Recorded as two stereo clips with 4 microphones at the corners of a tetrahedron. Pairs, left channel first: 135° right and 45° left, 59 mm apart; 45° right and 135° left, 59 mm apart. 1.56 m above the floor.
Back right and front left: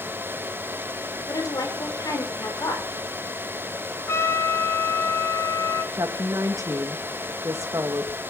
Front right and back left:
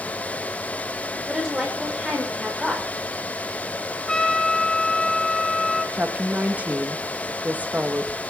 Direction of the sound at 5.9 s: 70° left.